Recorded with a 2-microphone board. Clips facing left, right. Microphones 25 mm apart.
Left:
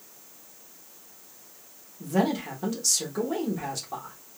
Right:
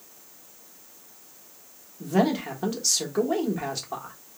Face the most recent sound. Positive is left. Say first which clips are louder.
# right 2 dB
turn(degrees=-25)  # may be behind; listen again after turning